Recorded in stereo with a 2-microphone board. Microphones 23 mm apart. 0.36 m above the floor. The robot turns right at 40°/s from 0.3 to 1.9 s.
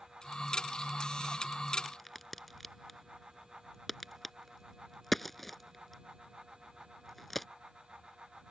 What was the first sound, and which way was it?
A crack, 10° left (ahead or behind).